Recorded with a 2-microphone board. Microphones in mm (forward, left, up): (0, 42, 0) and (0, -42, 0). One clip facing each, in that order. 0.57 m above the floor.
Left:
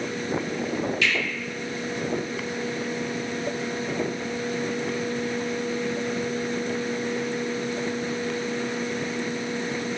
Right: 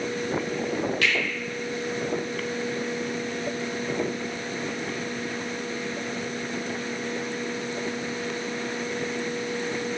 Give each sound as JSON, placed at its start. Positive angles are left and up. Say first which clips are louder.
{"t": 1.0, "sound": "a finger snap", "louder": "even", "side_deg": -55, "distance_m": 1.1}